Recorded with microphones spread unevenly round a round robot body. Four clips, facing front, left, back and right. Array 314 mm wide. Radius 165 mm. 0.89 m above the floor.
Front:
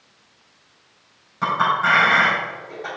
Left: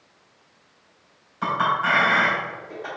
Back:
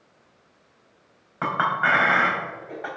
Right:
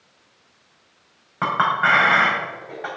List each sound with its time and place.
1.4 s a clink: 95° right, 4.5 m